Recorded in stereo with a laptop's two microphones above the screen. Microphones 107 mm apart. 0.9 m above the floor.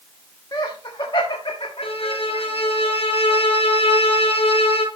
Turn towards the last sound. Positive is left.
turn(degrees=65)  # may be behind; listen again after turning